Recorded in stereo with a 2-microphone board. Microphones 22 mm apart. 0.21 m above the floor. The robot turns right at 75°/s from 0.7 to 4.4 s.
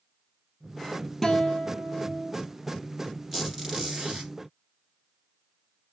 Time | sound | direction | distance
1.2 | a guitar | 20° left | 1.0 m
3.3 | a squeak | 175° right | 2 m